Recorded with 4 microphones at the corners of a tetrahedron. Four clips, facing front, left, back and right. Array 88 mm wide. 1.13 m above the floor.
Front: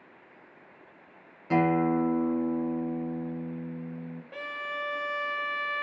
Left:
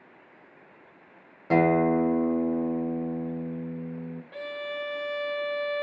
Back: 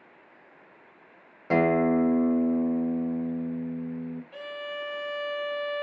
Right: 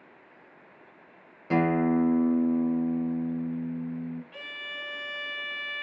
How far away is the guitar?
About 1.0 m.